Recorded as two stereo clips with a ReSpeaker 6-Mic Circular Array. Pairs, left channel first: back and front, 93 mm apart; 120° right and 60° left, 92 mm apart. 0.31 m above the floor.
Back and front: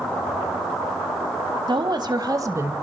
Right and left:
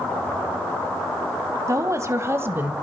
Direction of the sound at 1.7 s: 10° left.